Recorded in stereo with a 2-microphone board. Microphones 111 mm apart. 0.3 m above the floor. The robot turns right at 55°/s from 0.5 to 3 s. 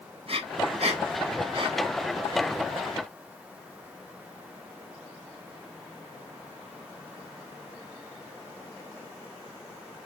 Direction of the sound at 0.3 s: 55° right (ahead or behind).